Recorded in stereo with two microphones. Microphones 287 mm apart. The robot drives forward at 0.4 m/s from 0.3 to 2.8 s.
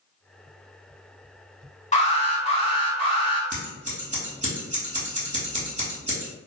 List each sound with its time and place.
1.9 s an alarm: 25° left (ahead or behind), 1.1 m; by 3.4 s 20° left (ahead or behind), 1.3 m
3.5 s scissors: 25° right (ahead or behind), 1.5 m